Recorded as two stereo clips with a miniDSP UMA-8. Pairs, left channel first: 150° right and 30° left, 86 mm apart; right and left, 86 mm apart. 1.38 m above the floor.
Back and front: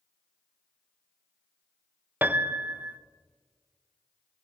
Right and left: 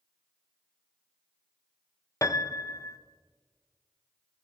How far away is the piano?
About 0.6 m.